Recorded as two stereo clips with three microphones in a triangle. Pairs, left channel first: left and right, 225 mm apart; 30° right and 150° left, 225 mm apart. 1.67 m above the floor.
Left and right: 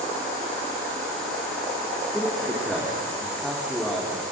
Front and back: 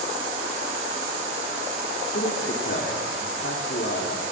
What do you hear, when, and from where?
2.1 s a man speaking: straight ahead, 4 m